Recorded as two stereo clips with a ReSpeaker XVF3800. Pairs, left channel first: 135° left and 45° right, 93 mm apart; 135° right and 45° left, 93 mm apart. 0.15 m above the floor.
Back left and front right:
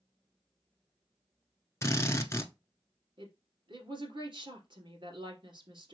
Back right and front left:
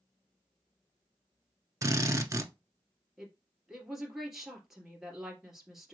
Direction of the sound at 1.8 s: 90° left.